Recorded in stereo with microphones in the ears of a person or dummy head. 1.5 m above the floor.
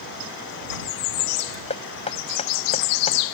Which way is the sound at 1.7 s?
35° left (ahead or behind).